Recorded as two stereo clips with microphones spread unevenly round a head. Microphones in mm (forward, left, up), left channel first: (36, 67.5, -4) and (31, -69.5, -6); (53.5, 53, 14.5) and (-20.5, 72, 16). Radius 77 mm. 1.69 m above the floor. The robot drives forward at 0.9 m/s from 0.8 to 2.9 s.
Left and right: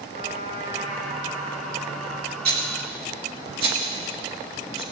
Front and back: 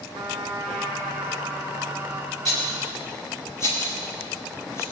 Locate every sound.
0.1 s a trumpet: 145° right, 1.6 m; by 2.4 s 160° right, 3 m
2.5 s a rattle: 100° right, 1.9 m; by 4.8 s 110° right, 2.0 m